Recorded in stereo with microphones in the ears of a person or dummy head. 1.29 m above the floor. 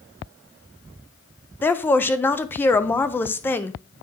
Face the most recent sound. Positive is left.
turn(degrees=10)  # may be behind; listen again after turning